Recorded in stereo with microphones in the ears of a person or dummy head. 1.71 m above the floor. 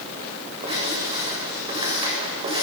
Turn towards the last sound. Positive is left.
turn(degrees=-25)  # may be behind; listen again after turning